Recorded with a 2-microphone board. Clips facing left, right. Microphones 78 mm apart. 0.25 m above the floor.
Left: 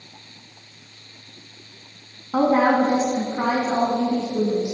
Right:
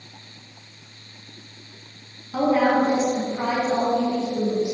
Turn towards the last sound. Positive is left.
turn(degrees=30)  # may be behind; listen again after turning